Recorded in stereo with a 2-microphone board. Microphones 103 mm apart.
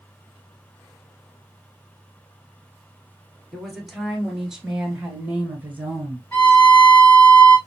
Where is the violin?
20° left (ahead or behind), 2.5 m.